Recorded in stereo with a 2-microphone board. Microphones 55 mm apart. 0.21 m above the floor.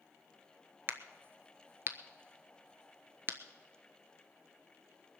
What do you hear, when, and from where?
0.9 s a crack: 40° right (ahead or behind), 1.0 m